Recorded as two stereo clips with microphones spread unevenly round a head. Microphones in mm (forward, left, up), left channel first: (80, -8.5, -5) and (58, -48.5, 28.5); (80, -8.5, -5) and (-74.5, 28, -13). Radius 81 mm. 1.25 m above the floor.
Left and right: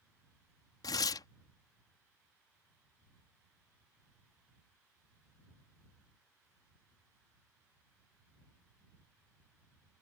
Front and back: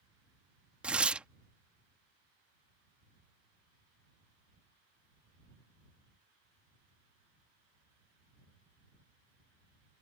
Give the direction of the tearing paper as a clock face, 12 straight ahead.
9 o'clock.